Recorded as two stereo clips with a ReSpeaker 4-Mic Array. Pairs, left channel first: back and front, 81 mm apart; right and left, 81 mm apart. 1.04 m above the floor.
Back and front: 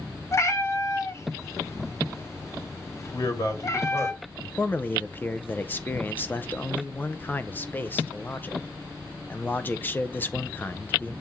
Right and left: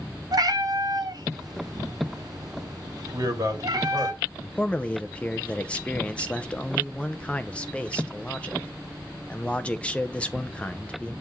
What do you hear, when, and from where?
0.3 s a cat meowing: 125° left, 1.1 m
3.1 s a man speaking: 135° left, 2.0 m
4.6 s a man speaking: 145° right, 0.7 m